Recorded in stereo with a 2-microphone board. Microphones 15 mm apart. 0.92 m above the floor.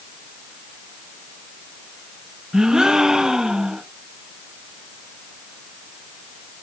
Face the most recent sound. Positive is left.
turn(degrees=-55)  # may be behind; listen again after turning